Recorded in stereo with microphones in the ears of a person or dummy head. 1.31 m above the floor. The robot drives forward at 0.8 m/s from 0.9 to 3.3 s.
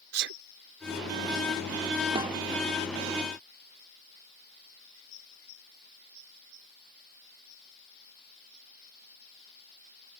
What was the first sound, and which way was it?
A sneeze, 65° right (ahead or behind).